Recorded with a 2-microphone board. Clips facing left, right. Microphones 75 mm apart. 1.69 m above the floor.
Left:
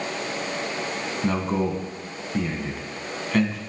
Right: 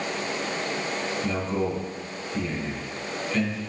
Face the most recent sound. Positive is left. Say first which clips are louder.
# left 5 dB
turn(degrees=45)  # may be behind; listen again after turning